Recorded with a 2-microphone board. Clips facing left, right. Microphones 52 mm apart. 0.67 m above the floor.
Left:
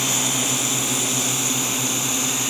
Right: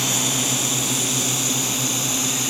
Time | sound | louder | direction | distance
0.0 | a drone | even | 15° left (ahead or behind) | ?